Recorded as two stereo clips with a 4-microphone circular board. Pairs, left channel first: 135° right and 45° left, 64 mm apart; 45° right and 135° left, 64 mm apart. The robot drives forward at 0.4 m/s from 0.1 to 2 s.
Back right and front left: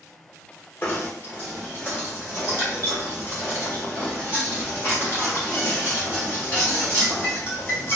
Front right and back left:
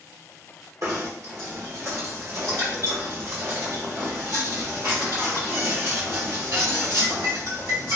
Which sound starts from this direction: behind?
Knocking, at 0.8 s.